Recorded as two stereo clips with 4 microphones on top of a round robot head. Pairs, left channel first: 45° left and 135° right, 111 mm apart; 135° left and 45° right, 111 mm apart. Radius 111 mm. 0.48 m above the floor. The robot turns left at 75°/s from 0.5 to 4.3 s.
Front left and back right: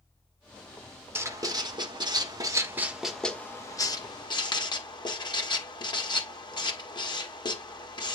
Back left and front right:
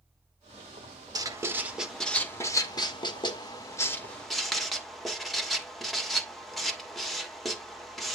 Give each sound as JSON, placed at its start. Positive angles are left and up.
{"t": 1.1, "sound": "writing", "azimuth_deg": -80, "distance_m": 1.7}